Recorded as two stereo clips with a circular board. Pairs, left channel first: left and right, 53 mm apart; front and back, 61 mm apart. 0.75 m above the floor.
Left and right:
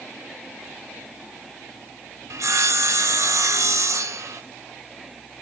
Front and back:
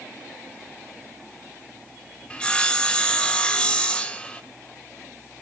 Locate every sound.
2.3 s sawing: 75° right, 0.6 m